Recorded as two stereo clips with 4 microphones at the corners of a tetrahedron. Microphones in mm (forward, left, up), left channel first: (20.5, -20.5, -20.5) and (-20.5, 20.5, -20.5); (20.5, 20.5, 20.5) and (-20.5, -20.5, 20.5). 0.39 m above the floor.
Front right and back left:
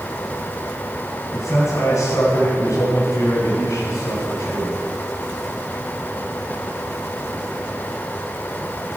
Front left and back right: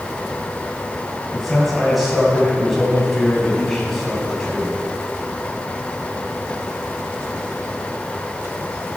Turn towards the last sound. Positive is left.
turn(degrees=-45)